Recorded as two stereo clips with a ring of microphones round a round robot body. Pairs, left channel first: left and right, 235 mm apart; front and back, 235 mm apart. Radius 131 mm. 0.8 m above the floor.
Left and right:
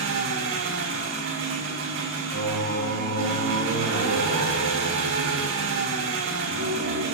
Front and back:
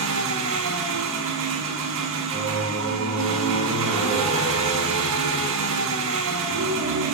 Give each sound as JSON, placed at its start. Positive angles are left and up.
{"t": 0.0, "sound": "an engine running", "azimuth_deg": -135, "distance_m": 4.5}
{"t": 2.3, "sound": "singing", "azimuth_deg": -110, "distance_m": 4.5}